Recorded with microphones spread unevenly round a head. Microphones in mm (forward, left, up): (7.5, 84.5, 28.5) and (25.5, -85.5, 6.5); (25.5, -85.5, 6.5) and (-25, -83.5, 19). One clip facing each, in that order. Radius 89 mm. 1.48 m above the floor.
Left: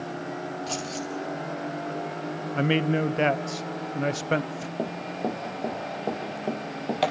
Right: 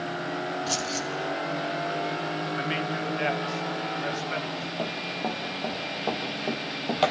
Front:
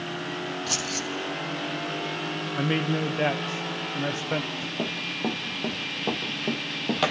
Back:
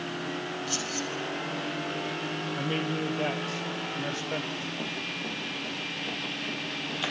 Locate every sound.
0.7 s keys jangling: 5° right, 1.7 m
2.5 s a man speaking: 65° left, 0.8 m
4.8 s running footsteps: 55° left, 2.5 m; by 7.1 s 15° left, 1.9 m